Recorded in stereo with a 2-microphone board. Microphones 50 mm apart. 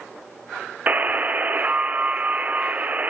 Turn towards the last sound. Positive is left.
turn(degrees=-30)  # may be behind; listen again after turning